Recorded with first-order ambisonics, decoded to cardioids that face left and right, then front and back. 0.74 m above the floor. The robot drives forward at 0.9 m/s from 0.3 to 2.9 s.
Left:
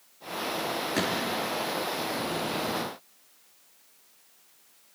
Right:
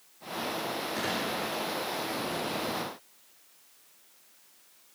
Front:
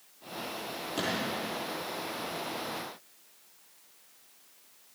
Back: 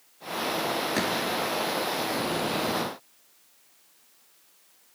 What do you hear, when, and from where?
0.9 s a gunshot: 150° left, 5 m